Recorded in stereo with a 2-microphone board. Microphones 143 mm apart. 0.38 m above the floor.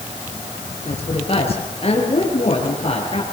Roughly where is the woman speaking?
Left.